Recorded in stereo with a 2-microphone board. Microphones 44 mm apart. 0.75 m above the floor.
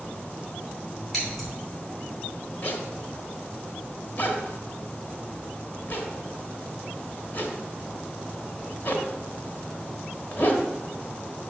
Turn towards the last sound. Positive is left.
turn(degrees=50)  # may be behind; listen again after turning